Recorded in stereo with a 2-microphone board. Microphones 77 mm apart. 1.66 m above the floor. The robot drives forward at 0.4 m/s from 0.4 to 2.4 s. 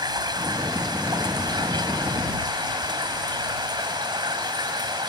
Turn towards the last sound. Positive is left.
turn(degrees=-75)  # may be behind; listen again after turning